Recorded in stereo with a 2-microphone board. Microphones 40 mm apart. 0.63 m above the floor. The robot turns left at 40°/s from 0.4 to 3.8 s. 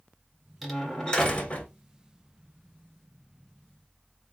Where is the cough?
No cough in this recording.